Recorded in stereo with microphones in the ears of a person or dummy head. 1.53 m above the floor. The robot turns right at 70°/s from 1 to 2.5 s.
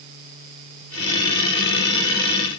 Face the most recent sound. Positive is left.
No sound to turn to.